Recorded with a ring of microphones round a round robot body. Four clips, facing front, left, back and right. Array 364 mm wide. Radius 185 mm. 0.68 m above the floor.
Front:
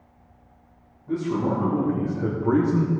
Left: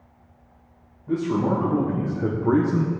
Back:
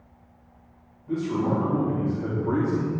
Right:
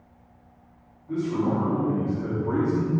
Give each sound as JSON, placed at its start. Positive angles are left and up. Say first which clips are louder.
{"t": 1.1, "sound": "a man speaking", "louder": "left 3 dB, front 1 dB", "azimuth_deg": 80, "distance_m": 2.5}